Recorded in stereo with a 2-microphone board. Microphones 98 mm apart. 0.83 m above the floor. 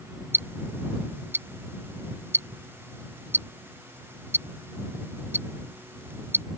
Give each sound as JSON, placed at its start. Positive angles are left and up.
{"t": 0.3, "sound": "ticking", "side_deg": -25}